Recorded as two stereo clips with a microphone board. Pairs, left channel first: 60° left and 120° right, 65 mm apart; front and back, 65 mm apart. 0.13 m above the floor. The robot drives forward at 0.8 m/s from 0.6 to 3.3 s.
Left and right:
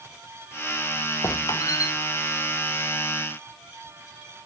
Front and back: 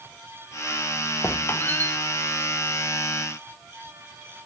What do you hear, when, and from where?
1.2 s a squeak: 40° left, 1.4 m; by 1.9 s 60° left, 1.1 m